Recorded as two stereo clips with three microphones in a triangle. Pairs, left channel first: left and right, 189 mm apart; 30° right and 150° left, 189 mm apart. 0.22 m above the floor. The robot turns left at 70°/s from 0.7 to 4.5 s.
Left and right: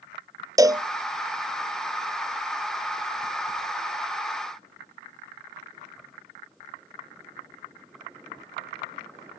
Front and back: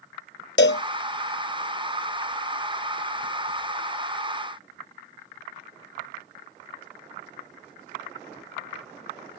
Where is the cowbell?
20° right; by 0.8 s 30° right.